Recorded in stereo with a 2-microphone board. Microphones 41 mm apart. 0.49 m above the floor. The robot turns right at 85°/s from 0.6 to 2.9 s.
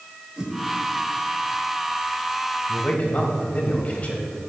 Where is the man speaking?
20° left (ahead or behind), 2 m; by 4.2 s 35° left (ahead or behind), 2 m.